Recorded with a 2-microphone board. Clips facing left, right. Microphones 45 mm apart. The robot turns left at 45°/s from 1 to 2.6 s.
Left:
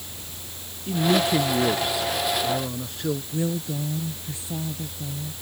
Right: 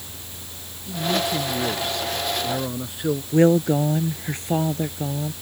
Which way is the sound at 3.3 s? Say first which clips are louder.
Right 11 dB; 60° right (ahead or behind).